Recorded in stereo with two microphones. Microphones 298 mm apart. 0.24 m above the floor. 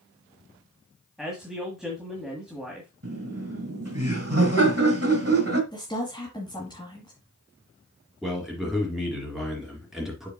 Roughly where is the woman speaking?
Centre.